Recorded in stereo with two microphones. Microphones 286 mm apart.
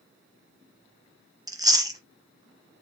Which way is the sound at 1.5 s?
15° right (ahead or behind).